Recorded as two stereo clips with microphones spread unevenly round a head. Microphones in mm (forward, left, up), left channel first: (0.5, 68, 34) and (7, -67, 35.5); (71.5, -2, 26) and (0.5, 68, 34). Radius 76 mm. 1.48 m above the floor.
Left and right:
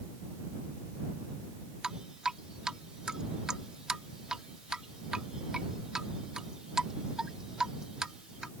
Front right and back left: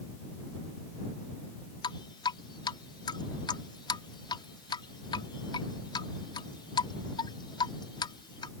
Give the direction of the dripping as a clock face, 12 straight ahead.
12 o'clock.